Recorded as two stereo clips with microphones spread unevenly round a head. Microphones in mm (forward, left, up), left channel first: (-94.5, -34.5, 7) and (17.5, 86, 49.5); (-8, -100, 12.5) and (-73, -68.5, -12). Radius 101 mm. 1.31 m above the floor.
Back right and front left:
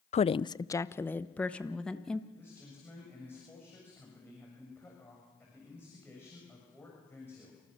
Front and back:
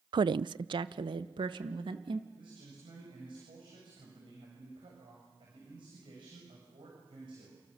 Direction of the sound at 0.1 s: 175° left.